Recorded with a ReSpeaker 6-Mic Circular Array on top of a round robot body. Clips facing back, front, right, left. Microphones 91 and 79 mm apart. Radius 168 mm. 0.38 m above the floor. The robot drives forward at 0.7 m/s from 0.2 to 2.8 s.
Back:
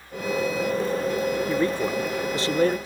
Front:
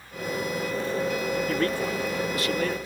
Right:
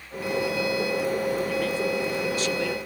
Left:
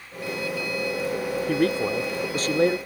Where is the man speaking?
100° left; by 2.8 s 135° left.